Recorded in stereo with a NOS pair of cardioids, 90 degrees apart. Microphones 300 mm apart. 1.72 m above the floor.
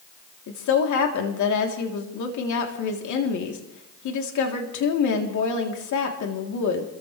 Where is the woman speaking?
70° left, 3.5 m.